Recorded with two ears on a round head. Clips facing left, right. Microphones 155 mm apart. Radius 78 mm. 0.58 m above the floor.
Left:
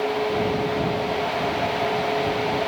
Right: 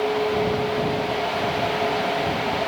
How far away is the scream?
No scream in this recording.